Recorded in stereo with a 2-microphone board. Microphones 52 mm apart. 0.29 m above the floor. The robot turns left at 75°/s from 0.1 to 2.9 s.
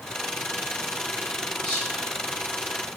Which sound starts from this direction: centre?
Whispering, at 1.6 s.